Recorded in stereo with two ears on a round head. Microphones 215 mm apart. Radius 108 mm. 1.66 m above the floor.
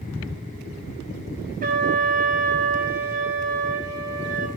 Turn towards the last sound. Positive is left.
turn(degrees=-40)  # may be behind; listen again after turning